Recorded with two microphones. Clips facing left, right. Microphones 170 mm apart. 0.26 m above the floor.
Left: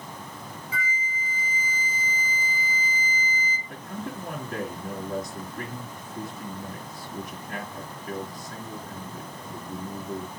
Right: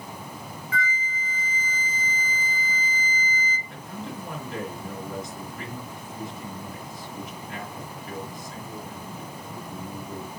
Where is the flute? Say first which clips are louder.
Right 4 dB; 10° left (ahead or behind), 1.1 m.